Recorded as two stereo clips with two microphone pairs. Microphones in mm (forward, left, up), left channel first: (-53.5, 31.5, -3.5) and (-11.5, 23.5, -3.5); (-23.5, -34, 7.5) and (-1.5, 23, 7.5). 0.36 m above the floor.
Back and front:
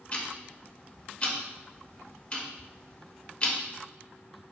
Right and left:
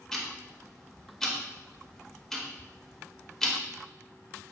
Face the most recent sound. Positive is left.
turn(degrees=175)